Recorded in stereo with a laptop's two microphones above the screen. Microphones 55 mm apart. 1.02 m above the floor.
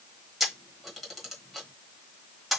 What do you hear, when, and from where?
0.4 s a camera shutter: centre (ahead or behind), 1.1 m